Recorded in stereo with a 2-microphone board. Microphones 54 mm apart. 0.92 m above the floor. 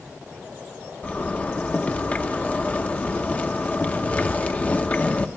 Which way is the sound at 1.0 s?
30° left (ahead or behind).